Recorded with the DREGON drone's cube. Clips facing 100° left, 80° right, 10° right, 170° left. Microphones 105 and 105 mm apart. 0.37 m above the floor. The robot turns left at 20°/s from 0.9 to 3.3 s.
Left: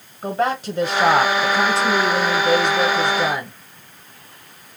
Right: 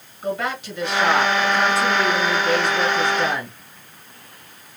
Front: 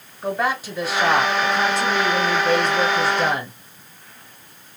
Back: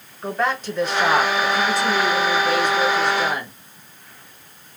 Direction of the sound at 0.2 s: 70° left.